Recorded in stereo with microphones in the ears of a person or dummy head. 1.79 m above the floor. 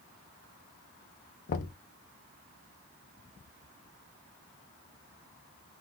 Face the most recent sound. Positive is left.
turn(degrees=50)  # may be behind; listen again after turning